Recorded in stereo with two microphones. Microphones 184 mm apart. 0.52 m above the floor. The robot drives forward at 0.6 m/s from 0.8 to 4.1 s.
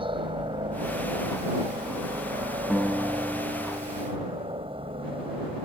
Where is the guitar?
5° right (ahead or behind).